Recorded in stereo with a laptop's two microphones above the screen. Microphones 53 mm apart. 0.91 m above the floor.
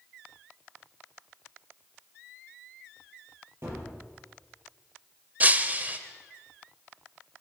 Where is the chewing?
I don't hear chewing.